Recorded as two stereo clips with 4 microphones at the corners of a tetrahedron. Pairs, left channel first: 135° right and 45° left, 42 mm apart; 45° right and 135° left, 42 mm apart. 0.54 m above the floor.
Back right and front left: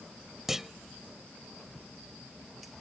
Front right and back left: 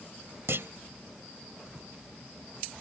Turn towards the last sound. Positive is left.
turn(degrees=125)